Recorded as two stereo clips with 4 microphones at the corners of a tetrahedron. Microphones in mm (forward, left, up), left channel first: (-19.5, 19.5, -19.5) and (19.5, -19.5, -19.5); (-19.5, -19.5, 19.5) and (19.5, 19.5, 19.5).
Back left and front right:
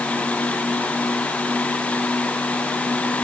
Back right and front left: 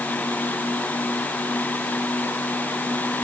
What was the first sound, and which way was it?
Only background noise.